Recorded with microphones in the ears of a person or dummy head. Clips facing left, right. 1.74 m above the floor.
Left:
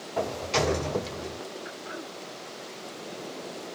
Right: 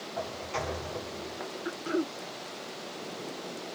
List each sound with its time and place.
0.2 s a sliding door: 75° left (ahead or behind)
1.6 s throat clearing: 50° right (ahead or behind)